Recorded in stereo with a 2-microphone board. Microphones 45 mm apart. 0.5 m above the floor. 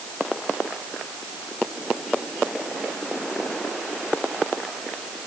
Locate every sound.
Only background noise.